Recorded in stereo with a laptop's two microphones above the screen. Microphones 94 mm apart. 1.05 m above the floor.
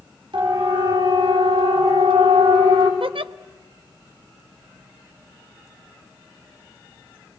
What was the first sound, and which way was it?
A siren, 65° right (ahead or behind).